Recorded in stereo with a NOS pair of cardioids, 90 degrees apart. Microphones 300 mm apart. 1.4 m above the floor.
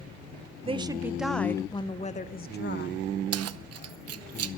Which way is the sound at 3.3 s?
55° right.